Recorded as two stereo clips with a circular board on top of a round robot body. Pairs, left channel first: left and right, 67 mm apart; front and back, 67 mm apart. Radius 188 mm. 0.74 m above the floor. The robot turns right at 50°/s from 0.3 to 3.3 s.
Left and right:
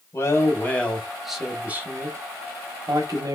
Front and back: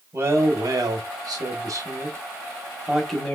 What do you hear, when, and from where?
0.1 s a man speaking: 135° left, 1.5 m; by 3.4 s 75° right, 1.5 m